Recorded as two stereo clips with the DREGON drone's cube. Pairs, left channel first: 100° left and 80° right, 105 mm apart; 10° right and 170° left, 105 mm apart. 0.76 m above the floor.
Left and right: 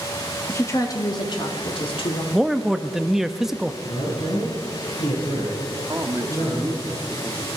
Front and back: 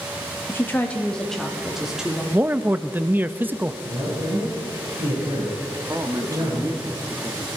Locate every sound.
0.5 s a woman speaking: 45° left, 1.3 m; by 2.2 s 90° left, 2.5 m
2.3 s a man speaking: 160° right, 0.6 m
3.8 s a man speaking: 125° left, 5 m
5.9 s a man speaking: 135° right, 1.3 m